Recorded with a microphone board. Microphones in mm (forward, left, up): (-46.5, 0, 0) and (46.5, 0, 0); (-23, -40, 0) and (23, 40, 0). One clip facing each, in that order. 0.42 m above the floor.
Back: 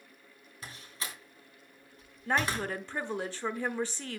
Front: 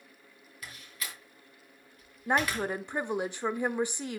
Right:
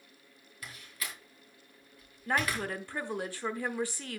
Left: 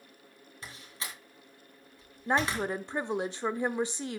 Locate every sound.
0.6 s a door slam: 120° left, 3 m
2.3 s a woman speaking: 45° left, 0.9 m